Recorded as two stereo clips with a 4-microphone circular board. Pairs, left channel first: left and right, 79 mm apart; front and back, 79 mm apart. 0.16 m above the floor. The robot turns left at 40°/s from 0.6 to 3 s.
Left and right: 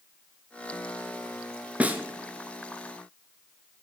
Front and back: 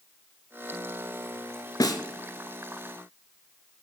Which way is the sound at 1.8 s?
20° right.